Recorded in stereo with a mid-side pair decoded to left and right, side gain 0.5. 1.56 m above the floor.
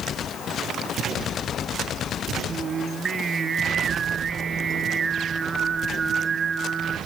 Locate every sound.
2.5 s singing: 35° right, 0.9 m